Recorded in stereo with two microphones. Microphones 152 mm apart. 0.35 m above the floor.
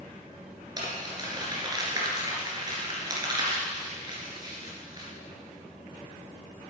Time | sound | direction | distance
0.8 | crumpling | 25° right (ahead or behind) | 2.5 m